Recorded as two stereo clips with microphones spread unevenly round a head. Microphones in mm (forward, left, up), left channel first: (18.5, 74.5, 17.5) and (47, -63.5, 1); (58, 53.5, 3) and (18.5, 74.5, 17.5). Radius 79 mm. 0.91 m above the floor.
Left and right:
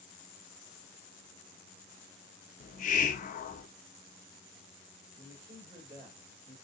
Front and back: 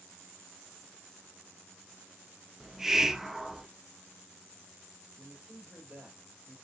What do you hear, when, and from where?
2.6 s a hiss: 70° left, 0.6 m
5.2 s a man speaking: 135° right, 3 m